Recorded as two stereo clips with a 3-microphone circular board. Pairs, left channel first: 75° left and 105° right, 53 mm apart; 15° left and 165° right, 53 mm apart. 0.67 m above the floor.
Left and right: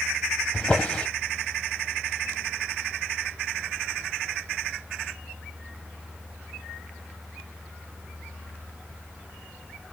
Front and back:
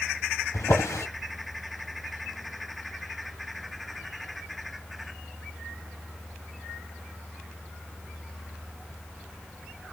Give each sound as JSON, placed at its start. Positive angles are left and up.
{"t": 0.5, "sound": "a drawer", "azimuth_deg": 5, "distance_m": 1.4}